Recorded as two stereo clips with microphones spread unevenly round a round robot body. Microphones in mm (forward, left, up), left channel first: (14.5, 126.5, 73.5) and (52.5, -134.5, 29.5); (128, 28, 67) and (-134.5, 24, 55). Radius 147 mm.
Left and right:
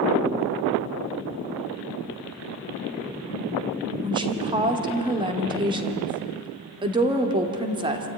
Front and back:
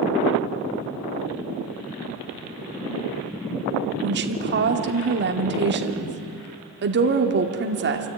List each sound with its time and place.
4.0 s a woman speaking: 145° right, 1.7 m